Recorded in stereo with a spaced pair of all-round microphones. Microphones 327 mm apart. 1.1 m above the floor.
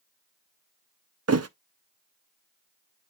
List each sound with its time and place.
1.3 s a thud: 45° right (ahead or behind), 0.5 m